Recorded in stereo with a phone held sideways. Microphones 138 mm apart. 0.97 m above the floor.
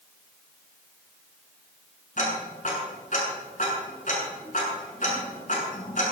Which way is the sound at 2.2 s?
70° left (ahead or behind).